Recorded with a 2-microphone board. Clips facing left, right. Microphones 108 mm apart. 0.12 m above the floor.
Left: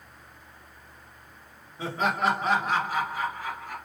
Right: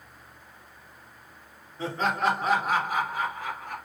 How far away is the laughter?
About 1.5 m.